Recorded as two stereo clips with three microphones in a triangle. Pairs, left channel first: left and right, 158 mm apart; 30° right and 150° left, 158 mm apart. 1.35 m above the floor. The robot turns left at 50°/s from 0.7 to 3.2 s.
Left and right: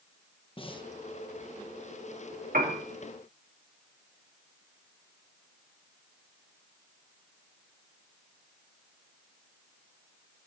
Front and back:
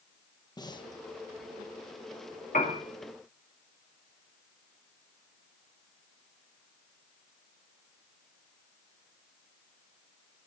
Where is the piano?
65° right, 3 m; by 2.8 s 80° right, 3 m.